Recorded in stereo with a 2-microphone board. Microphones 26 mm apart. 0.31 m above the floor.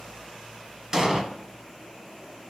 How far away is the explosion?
About 1.3 m.